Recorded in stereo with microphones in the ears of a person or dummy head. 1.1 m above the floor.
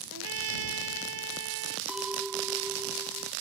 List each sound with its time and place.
0.1 s a trumpet: 70° right (ahead or behind)
1.9 s a clink: 5° right (ahead or behind)